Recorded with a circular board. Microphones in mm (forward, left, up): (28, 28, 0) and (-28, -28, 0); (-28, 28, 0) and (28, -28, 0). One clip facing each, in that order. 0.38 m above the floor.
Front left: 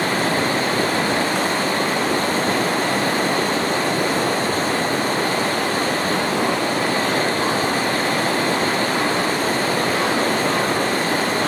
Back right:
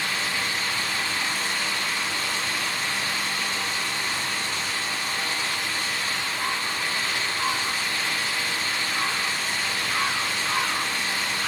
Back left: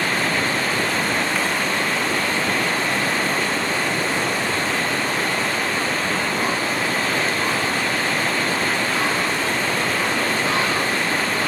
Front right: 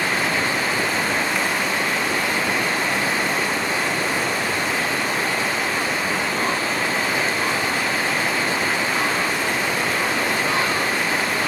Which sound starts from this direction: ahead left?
Running water, at 0.0 s.